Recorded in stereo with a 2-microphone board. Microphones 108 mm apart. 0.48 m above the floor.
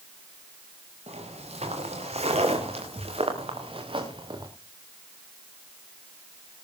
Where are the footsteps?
85° right, 6 m; by 4.5 s 45° right (ahead or behind), 4 m.